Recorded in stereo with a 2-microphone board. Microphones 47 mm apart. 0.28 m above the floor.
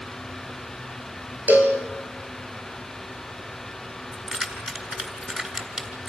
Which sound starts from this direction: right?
A cowbell, at 1.5 s.